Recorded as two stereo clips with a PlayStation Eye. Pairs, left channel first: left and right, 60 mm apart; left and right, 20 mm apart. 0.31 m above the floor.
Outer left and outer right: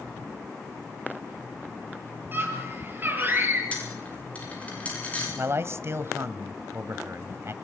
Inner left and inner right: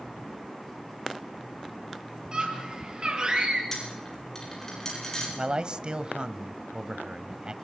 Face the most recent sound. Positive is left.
turn(degrees=-40)  # may be behind; listen again after turning